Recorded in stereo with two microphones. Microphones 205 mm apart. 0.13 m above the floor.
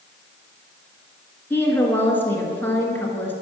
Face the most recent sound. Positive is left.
turn(degrees=10)  # may be behind; listen again after turning